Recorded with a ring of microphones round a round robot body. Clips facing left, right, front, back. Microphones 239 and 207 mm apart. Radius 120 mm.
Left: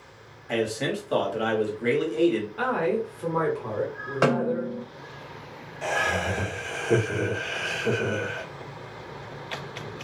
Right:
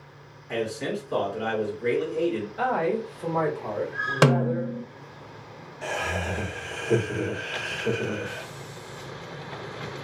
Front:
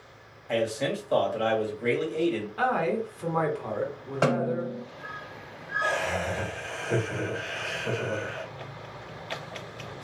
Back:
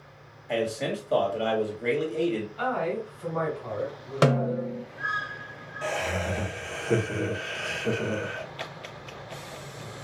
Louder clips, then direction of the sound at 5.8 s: Left 2 dB, even; 170° left.